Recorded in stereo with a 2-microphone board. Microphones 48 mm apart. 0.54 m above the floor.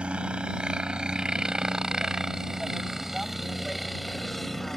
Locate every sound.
0.0 s a helicopter: 25° right (ahead or behind); by 4.8 s 5° left (ahead or behind)